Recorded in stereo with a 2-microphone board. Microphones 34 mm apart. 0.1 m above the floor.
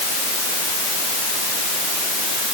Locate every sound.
Only background noise.